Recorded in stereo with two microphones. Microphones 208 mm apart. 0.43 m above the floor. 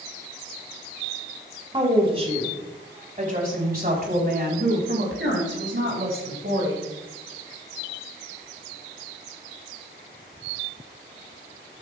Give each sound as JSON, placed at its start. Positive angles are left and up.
{"t": 1.7, "sound": "a woman speaking", "side_deg": -25, "distance_m": 3.5}